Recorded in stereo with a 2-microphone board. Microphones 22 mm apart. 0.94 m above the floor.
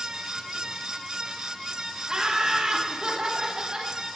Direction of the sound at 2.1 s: 35° right (ahead or behind).